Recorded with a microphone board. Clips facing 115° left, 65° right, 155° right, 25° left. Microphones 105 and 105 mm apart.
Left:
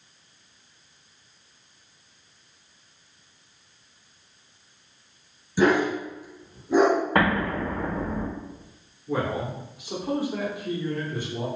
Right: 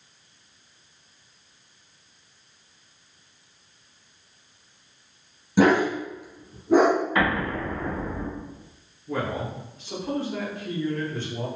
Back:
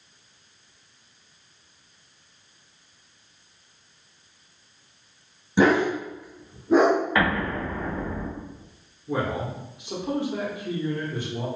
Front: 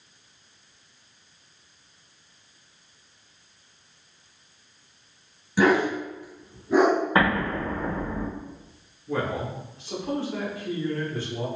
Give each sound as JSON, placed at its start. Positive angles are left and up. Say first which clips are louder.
{"t": 5.6, "sound": "a dog barking", "louder": "right 2 dB, back 1 dB", "azimuth_deg": -95, "distance_m": 0.8}
{"t": 7.2, "sound": "an explosion", "louder": "left 2 dB, front 1 dB", "azimuth_deg": 80, "distance_m": 0.9}
{"t": 9.1, "sound": "a man speaking", "louder": "left 2 dB, back 1 dB", "azimuth_deg": 165, "distance_m": 0.7}